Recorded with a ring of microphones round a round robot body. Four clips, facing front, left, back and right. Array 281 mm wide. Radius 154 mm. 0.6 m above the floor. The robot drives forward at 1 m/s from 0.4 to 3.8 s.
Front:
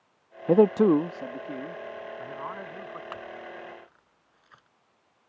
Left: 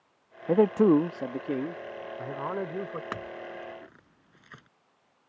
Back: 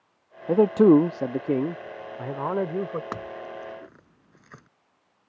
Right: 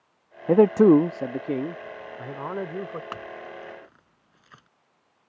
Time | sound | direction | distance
0.5 | a man speaking | 55° right | ?
3.1 | a clink | 160° left | ?